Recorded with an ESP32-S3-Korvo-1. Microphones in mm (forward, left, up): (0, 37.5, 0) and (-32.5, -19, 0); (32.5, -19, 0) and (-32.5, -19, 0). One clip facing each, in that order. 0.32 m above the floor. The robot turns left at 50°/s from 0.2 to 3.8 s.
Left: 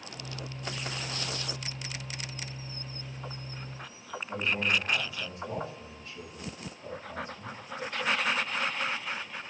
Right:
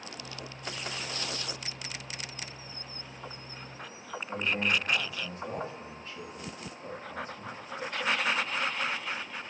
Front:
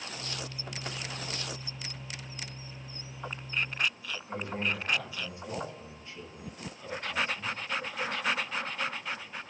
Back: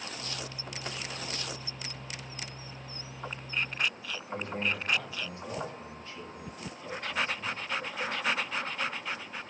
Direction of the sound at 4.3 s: 70° right.